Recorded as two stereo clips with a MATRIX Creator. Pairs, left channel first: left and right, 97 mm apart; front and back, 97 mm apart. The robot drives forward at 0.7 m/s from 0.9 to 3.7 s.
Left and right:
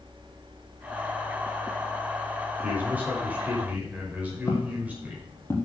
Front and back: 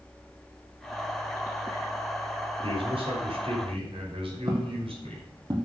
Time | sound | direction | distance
2.6 | a man speaking | 160° right | 5 m
4.5 | footsteps | 145° left | 3 m